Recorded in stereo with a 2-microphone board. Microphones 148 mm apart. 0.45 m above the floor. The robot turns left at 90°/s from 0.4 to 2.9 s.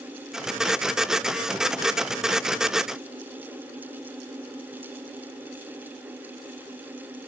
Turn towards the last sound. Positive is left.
No sound to turn to.